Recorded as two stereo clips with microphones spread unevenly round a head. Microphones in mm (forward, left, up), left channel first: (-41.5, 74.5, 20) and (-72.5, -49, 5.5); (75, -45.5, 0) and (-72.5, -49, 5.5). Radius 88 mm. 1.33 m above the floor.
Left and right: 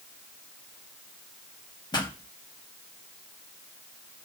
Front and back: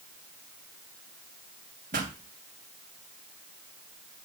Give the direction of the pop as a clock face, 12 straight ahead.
8 o'clock.